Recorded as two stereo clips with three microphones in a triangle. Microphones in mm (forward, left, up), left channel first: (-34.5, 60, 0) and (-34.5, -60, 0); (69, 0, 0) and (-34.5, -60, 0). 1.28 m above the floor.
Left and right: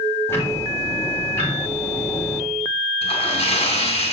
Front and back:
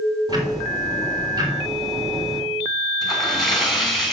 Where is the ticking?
160° left, 3.5 m.